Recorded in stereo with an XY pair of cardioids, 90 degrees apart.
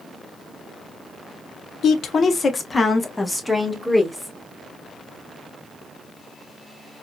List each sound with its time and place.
1.8 s a woman speaking: 70° left, 1.0 m; by 4.3 s 5° left, 2.5 m